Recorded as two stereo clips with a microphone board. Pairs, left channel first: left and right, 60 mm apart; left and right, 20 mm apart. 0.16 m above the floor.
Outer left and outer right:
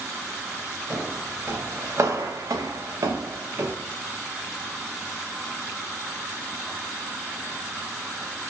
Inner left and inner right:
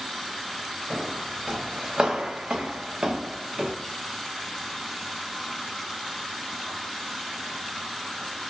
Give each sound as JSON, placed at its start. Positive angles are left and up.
{"t": 0.9, "sound": "footsteps", "side_deg": -30, "distance_m": 1.2}